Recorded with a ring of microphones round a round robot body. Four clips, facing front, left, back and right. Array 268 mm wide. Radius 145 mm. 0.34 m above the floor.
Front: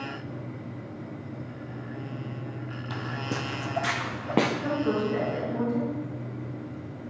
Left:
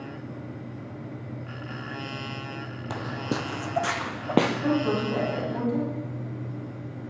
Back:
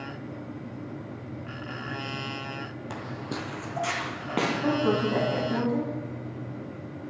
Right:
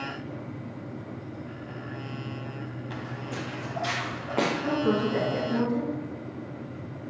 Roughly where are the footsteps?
Left.